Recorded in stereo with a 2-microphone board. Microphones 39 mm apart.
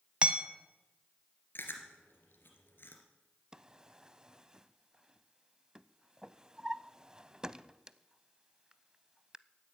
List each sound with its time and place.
0.2 s hammering: 30° right (ahead or behind), 1.3 m
1.6 s chewing: 60° left (ahead or behind), 2.5 m
3.5 s a drawer: 20° right (ahead or behind), 0.5 m